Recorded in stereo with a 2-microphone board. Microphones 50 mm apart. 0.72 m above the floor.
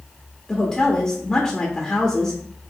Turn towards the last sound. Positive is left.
turn(degrees=10)  # may be behind; listen again after turning